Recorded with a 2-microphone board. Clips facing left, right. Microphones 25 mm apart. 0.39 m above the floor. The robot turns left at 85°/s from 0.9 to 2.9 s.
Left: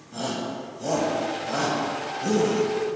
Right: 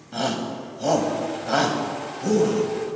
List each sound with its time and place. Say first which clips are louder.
0.1 s a shout: right 4 dB; 50° right (ahead or behind), 1.7 m; by 2.6 s 20° left (ahead or behind), 1.7 m